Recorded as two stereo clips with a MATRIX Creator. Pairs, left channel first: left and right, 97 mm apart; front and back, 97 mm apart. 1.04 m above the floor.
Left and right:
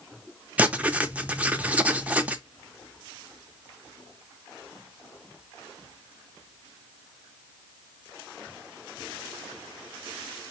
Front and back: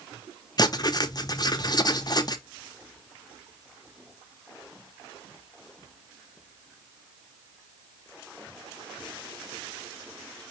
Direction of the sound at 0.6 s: 20° right.